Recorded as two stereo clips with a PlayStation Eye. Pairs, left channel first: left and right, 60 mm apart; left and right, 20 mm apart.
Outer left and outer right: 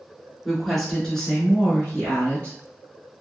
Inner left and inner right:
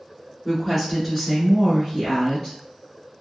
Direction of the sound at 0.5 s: Centre (ahead or behind).